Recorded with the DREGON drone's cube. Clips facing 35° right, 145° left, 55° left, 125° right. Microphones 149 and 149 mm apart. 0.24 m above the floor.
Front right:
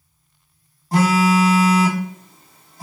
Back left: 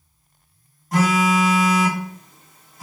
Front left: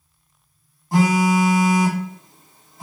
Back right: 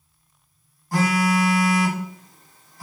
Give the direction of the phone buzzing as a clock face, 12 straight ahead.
12 o'clock.